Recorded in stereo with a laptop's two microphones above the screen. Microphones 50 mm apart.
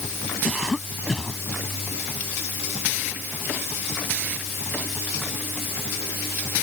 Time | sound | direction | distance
0.4 | a cough | 10° left (ahead or behind) | ?